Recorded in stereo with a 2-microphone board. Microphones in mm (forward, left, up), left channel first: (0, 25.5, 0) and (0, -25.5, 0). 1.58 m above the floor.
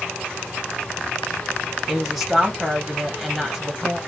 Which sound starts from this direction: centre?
A woman speaking, at 1.9 s.